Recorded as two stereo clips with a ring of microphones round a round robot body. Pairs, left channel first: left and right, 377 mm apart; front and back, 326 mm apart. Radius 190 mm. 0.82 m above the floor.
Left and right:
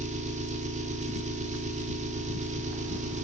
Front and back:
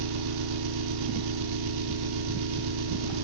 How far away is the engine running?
About 1.6 m.